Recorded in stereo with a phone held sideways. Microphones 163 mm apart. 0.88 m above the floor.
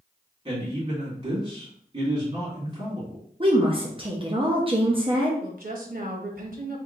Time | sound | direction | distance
0.5 | a man speaking | 30° right (ahead or behind) | 2.5 m
3.4 | a woman speaking | 35° right (ahead or behind) | 0.8 m
5.4 | a woman speaking | 65° right (ahead or behind) | 1.0 m